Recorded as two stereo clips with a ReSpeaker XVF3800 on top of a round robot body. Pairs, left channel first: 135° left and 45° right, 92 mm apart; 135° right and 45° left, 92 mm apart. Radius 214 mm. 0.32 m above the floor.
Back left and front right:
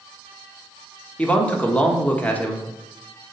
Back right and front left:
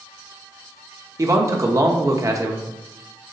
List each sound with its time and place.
1.2 s a man speaking: 70° left, 1.5 m